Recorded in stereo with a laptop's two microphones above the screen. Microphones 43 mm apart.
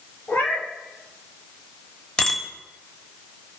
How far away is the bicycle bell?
About 3.5 m.